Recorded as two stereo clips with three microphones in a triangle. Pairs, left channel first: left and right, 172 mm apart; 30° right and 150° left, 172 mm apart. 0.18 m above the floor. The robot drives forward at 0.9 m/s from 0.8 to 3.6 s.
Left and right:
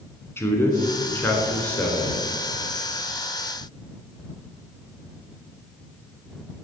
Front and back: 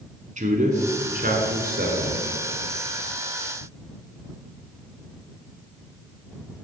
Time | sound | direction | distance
0.4 | a man speaking | 160° left | 1.5 m